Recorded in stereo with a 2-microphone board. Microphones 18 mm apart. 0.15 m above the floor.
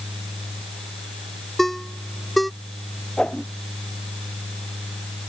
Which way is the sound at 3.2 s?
60° left (ahead or behind).